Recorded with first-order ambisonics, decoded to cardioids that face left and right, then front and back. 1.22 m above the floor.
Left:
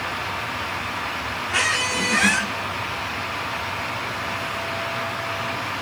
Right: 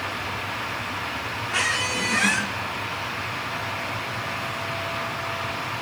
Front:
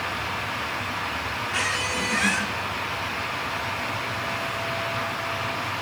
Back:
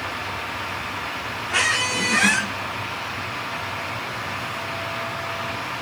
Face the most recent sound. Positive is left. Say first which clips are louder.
# left 2 dB, back 6 dB
turn(degrees=160)